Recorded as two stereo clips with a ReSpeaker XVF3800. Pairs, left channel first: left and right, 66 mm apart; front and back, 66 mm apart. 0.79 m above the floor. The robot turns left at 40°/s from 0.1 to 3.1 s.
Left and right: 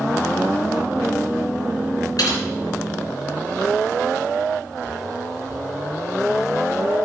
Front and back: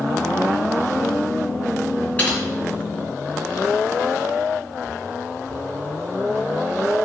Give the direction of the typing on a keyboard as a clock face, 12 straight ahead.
10 o'clock.